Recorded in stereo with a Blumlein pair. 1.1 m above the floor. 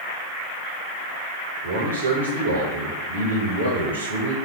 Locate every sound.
1.6 s a man speaking: 70° right, 0.9 m